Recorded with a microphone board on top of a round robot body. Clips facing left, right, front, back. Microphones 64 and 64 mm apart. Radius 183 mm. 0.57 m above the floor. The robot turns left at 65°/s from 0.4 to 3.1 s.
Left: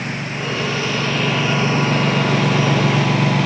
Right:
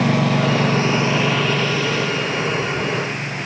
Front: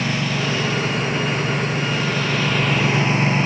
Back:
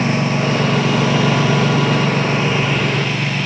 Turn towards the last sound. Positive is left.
turn(degrees=65)